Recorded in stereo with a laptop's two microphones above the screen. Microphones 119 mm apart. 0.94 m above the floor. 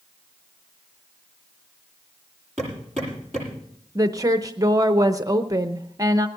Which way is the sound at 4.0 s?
30° right (ahead or behind).